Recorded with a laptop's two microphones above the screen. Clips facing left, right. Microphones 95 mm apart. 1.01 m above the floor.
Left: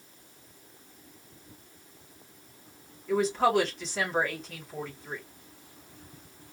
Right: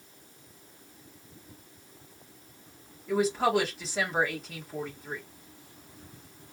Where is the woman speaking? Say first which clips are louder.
Left 1 dB; 5° right (ahead or behind), 1.2 m.